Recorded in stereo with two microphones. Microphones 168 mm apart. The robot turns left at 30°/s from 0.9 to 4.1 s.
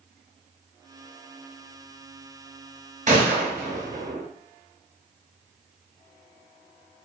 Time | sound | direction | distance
3.1 | a gunshot | 50° right (ahead or behind) | 0.9 m